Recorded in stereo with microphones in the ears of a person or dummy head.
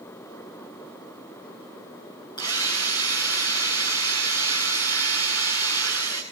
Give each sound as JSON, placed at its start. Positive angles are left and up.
{"t": 2.4, "sound": "a drill", "side_deg": 20, "distance_m": 5.5}